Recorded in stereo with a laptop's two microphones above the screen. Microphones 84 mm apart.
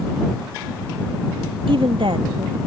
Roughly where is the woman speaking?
Right.